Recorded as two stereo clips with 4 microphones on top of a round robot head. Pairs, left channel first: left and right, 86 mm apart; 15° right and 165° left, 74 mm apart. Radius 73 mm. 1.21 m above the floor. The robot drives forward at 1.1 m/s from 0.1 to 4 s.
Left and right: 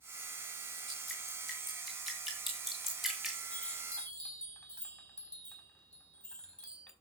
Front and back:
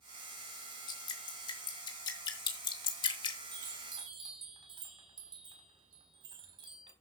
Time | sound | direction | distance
0.9 | dripping | straight ahead | 5 m
3.5 | a chime | 165° left | 4 m